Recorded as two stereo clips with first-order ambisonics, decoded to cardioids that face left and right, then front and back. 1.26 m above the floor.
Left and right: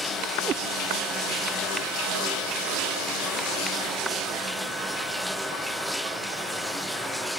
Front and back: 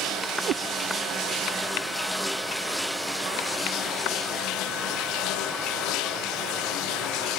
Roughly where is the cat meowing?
Behind right.